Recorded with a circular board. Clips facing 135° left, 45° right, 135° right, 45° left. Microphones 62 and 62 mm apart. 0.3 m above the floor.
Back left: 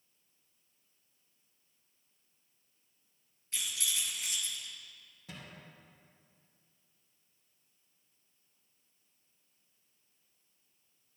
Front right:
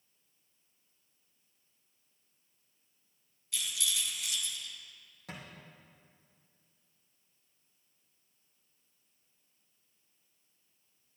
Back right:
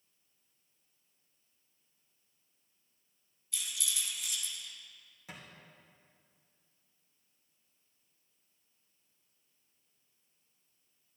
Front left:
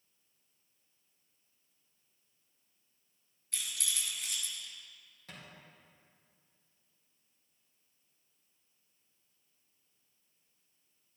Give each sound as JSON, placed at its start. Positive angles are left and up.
{"t": 3.5, "sound": "a rattle", "azimuth_deg": 80, "distance_m": 3.0}
{"t": 5.3, "sound": "a thud", "azimuth_deg": -60, "distance_m": 4.0}